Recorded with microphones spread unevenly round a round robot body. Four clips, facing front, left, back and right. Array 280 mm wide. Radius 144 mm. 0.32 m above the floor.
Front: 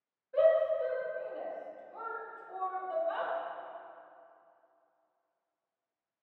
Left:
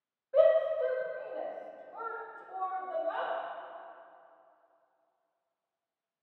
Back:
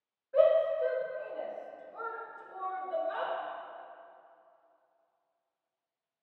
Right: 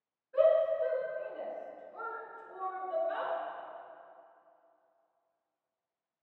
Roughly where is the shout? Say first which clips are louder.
Left 2 dB, back 1 dB; left.